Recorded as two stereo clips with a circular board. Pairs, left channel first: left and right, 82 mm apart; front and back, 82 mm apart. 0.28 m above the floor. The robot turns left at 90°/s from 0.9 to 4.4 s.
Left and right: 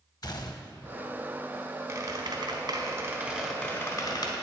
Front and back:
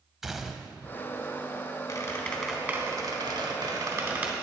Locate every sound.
0.2 s a gunshot: 95° left, 0.5 m; by 0.9 s 90° left, 0.5 m
1.9 s a squeak: 35° right, 1.2 m; by 4.3 s 105° left, 1.2 m